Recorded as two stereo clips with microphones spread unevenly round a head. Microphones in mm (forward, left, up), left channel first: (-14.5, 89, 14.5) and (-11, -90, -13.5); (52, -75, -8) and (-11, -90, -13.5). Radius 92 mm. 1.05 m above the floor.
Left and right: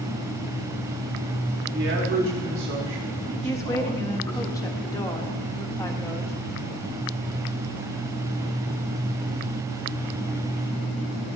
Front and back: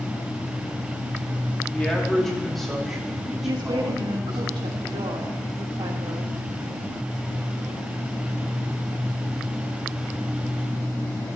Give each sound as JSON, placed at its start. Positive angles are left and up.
{"t": 1.7, "sound": "a man speaking", "azimuth_deg": -65, "distance_m": 2.5}
{"t": 3.4, "sound": "a woman speaking", "azimuth_deg": 165, "distance_m": 1.6}